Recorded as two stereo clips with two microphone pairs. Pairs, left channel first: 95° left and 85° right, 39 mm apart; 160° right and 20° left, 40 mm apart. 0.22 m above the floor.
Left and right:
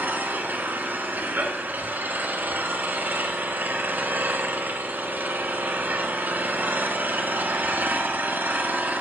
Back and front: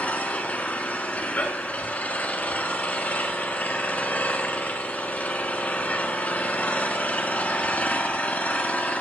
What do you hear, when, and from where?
0.0 s an engine running: 110° right, 1.3 m